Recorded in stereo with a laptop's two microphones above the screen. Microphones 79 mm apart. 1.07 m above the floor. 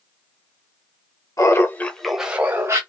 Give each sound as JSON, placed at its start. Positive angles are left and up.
{"t": 1.4, "sound": "laughter", "side_deg": 40, "distance_m": 0.9}